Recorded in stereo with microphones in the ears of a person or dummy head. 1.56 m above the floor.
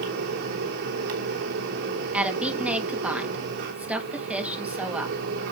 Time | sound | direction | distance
0.0 | a fan | 70° right (ahead or behind) | 3 m
2.1 | a woman speaking | 10° right (ahead or behind) | 2 m